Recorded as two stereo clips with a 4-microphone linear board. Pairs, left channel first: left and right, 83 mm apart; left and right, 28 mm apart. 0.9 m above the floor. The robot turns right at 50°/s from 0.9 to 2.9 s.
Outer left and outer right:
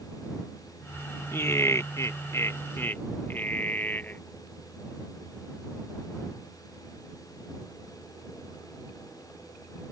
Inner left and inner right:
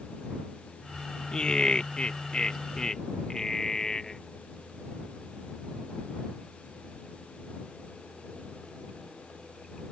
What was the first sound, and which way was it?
Laughter, 55° left.